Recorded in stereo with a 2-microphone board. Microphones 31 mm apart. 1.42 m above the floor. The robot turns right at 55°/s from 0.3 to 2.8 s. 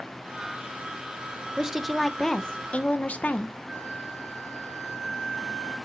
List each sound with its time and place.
1.6 s a woman speaking: 20° right, 0.7 m; by 3.6 s 45° left, 0.7 m
3.7 s a flute: 15° right (ahead or behind), 2.5 m